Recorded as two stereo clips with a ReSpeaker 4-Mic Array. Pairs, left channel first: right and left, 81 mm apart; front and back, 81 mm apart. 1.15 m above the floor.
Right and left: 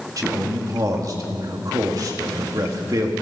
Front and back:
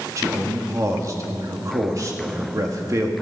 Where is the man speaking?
135° left, 2 m.